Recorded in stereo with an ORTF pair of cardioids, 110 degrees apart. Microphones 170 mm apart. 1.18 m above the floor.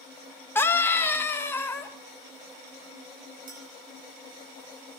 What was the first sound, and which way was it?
A scream, 15° left.